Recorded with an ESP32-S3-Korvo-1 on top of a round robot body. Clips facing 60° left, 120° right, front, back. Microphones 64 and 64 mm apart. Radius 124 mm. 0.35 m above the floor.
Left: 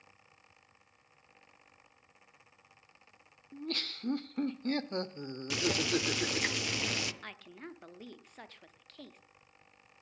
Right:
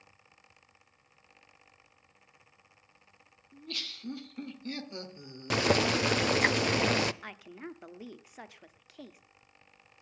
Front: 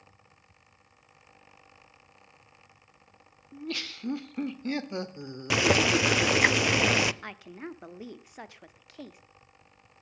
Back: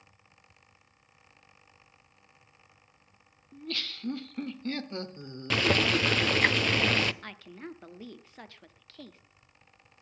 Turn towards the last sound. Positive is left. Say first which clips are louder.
# right 3 dB, front 3 dB
turn(degrees=-55)